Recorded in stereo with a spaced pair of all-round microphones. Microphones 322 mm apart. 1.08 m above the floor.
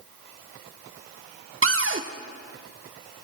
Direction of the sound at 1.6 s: 40° right (ahead or behind).